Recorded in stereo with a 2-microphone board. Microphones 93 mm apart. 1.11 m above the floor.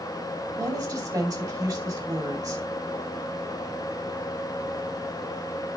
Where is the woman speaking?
40° right (ahead or behind), 2.5 m.